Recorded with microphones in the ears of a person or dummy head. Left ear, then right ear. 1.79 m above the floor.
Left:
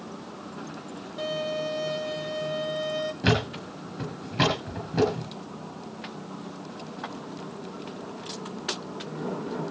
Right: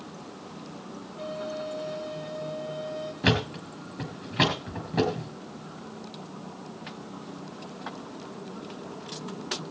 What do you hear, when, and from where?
1.2 s a violin: 75° left (ahead or behind), 4 m
3.2 s a thud: 10° right (ahead or behind), 5 m